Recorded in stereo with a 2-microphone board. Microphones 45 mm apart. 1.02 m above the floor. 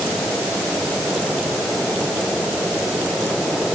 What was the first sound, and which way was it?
Only background noise.